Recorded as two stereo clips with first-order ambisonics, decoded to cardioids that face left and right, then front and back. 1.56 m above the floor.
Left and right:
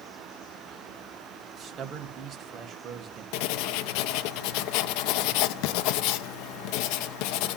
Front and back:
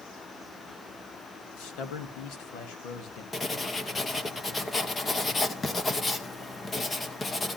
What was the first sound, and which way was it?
A man speaking, 30° right.